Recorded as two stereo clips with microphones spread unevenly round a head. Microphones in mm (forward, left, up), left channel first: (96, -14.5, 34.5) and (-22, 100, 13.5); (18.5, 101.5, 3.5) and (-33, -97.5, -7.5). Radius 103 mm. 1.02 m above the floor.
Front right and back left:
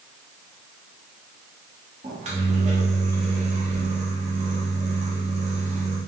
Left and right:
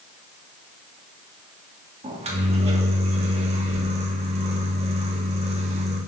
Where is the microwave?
165° right, 1.1 m.